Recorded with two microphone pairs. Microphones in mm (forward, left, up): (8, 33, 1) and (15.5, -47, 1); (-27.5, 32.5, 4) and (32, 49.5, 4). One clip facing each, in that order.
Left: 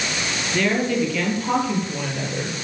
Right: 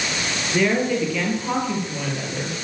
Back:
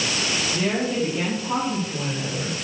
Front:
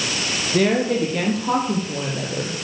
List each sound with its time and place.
0.5 s a woman speaking: straight ahead, 5.5 m; by 2.6 s 15° left, 6 m